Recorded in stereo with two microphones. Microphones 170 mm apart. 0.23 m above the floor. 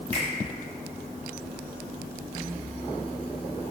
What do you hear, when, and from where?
0.1 s a finger snap: 40° right (ahead or behind), 1.4 m